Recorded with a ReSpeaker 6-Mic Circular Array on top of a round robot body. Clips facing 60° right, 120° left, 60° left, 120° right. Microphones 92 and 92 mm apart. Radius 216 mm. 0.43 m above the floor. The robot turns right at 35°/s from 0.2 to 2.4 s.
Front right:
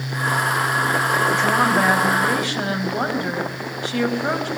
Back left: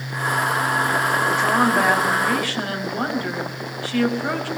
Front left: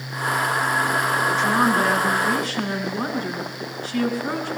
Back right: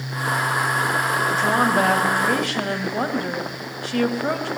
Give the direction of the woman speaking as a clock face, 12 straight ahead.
6 o'clock.